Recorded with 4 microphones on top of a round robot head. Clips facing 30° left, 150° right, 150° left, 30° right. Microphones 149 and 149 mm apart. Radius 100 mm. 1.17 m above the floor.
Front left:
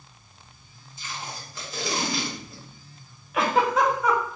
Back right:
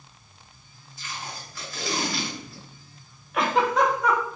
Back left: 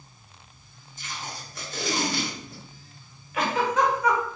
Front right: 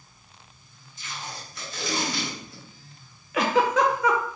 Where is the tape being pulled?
100° left, 1.4 m.